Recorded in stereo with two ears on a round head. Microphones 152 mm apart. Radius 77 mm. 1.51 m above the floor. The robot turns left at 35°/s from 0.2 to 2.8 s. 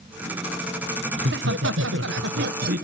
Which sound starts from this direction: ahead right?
Laughter, at 1.2 s.